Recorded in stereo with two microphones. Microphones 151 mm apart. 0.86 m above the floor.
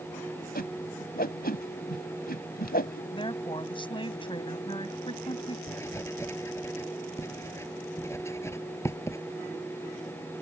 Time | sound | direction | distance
0.6 | a whoosh | 85° left | ?
3.1 | a woman speaking | 35° left (ahead or behind) | ?
5.7 | writing | 20° left (ahead or behind) | ?